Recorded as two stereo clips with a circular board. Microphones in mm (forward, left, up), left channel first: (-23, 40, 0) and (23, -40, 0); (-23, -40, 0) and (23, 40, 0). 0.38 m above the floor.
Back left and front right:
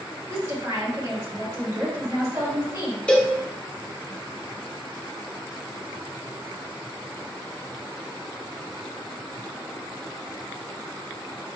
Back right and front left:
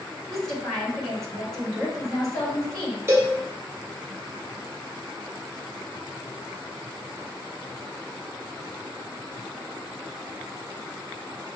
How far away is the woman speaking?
About 1.6 m.